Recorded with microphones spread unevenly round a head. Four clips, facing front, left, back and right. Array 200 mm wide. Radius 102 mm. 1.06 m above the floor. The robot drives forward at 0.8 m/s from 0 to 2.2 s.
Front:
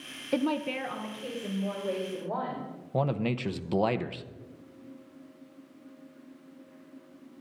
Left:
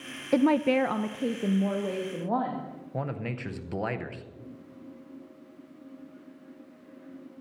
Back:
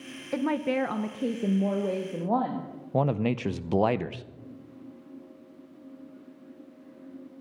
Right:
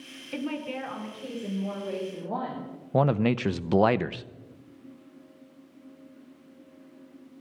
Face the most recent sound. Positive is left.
turn(degrees=-105)